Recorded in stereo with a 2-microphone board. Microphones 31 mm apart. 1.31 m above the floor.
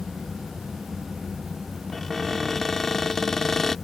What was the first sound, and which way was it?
A cupboard door, 15° left (ahead or behind).